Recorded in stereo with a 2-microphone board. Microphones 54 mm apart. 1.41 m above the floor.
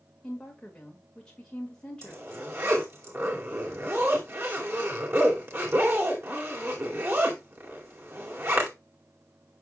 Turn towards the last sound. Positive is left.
turn(degrees=-45)  # may be behind; listen again after turning